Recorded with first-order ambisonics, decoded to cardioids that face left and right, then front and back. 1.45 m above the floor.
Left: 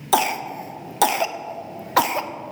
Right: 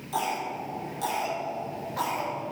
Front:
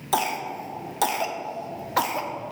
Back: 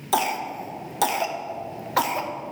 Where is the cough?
95° left, 0.5 m.